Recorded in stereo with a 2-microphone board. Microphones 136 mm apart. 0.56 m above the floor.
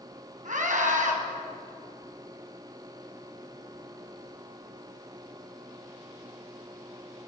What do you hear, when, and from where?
0.5 s a scream: 70° right (ahead or behind), 5.5 m